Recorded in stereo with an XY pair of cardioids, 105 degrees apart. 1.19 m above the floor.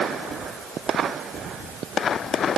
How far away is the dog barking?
No dog barking in this recording.